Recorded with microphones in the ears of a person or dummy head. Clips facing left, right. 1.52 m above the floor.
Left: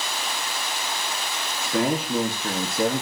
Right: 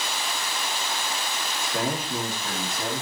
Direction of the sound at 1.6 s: 70° left (ahead or behind).